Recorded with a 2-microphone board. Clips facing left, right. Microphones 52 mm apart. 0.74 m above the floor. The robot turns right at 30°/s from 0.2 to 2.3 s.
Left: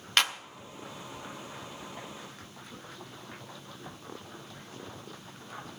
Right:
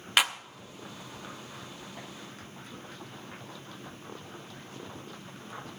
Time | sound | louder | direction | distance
0.2 | a clap | right 1 dB | 10° right (ahead or behind) | 0.7 m